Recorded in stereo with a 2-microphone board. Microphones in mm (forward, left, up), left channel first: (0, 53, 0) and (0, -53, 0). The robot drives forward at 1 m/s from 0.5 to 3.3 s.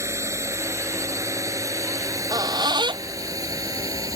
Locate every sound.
0.0 s a drone: 25° right (ahead or behind); by 4.2 s 35° right (ahead or behind)
2.0 s a squeak: 35° right (ahead or behind); by 4.2 s 55° right (ahead or behind)